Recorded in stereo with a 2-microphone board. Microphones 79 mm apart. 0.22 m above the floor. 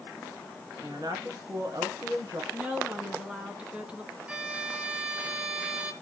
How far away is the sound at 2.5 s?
About 2 m.